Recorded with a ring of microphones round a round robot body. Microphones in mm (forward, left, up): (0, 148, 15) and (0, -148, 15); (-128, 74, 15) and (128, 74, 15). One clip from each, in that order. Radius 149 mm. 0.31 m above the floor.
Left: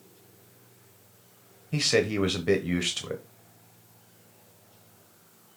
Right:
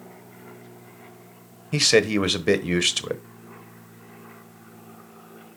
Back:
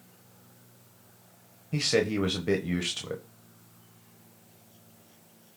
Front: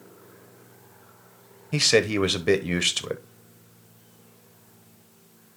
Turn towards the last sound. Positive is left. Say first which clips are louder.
# right 6 dB, front 6 dB
turn(degrees=-35)